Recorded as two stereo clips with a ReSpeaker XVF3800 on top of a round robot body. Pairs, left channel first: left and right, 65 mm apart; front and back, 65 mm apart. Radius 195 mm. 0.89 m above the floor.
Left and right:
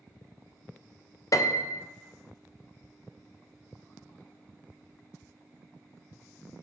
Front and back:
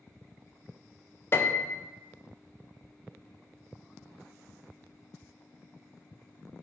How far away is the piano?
About 0.5 m.